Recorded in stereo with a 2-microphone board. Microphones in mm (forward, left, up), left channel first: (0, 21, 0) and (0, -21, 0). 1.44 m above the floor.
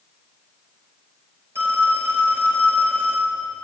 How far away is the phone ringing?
About 4 m.